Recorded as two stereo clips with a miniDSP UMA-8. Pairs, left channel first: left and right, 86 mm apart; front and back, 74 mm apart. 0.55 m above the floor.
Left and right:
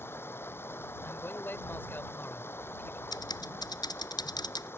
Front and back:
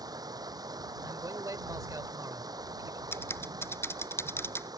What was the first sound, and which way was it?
Running water, 155° left.